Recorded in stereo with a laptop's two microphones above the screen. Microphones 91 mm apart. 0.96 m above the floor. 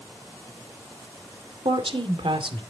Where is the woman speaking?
80° right, 2.5 m.